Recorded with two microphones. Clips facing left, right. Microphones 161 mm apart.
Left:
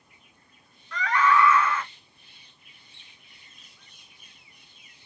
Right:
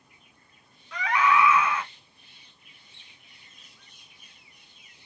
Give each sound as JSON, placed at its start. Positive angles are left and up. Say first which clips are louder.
{"t": 0.9, "sound": "a scream", "louder": "left 1 dB", "side_deg": -15, "distance_m": 1.2}